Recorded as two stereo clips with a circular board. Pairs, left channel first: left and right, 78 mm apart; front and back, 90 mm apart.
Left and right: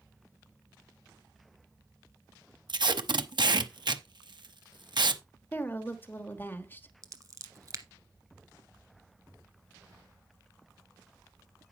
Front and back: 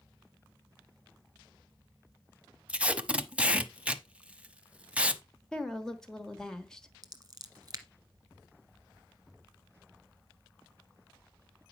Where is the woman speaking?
75° left, 1.2 m.